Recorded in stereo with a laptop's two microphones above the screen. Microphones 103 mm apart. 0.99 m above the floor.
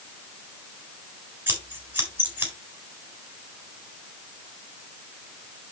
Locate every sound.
1.5 s scissors: 20° right (ahead or behind), 4 m